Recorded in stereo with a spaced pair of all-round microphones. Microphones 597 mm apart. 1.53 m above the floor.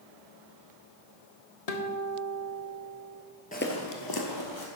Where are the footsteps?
15° left (ahead or behind), 1.6 m; by 4.7 s 50° left (ahead or behind), 2.5 m.